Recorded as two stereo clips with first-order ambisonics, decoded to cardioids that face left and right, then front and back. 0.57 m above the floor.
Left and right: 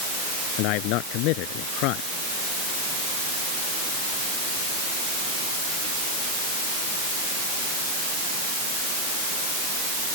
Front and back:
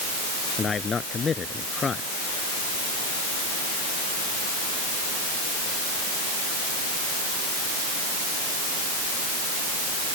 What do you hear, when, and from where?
0.6 s a man speaking: 70° left